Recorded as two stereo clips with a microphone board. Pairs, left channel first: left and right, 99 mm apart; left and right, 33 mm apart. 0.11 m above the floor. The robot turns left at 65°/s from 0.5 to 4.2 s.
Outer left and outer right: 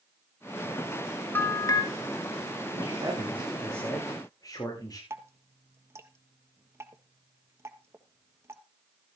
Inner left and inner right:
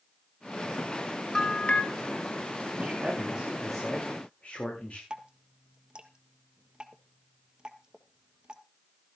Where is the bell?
155° left, 1.4 m; by 1.8 s 125° left, 1.4 m.